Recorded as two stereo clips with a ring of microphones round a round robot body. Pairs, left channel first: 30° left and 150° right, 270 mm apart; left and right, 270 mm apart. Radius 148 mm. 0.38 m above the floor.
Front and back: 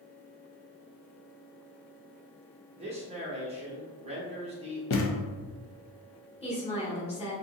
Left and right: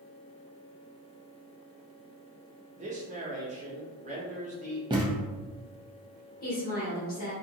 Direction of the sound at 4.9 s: 15° right.